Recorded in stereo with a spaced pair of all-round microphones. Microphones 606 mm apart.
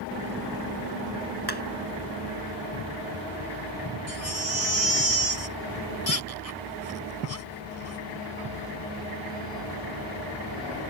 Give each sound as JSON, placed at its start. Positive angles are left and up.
{"t": 1.5, "sound": "hammering", "side_deg": 40}
{"t": 4.1, "sound": "a baby crying", "side_deg": 70}